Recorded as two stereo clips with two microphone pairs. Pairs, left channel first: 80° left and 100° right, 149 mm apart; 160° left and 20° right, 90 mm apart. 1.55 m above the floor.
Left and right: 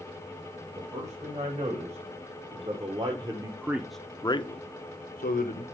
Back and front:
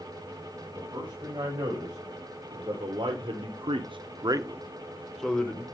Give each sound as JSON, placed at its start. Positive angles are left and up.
{"t": 0.8, "sound": "a man speaking", "azimuth_deg": -60, "distance_m": 2.5}